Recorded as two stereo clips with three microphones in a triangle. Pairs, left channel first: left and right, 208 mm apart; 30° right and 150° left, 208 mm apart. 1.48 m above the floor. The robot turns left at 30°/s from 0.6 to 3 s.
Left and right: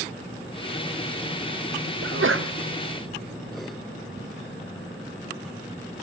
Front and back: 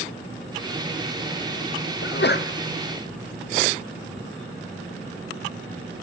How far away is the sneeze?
About 0.5 m.